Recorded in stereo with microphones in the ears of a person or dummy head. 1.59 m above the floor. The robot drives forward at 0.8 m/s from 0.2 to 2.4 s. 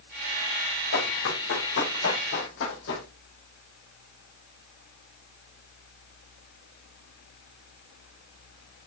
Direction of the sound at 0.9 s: 70° left (ahead or behind).